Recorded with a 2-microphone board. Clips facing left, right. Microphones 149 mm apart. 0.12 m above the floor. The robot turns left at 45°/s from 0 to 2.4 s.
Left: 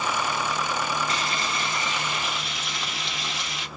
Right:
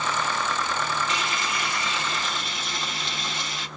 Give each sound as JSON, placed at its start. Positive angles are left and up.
{"t": 1.1, "sound": "frying", "azimuth_deg": 60, "distance_m": 1.4}